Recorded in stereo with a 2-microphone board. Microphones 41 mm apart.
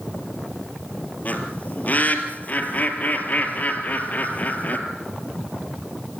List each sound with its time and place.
1.2 s a bird: 45° left (ahead or behind), 2.5 m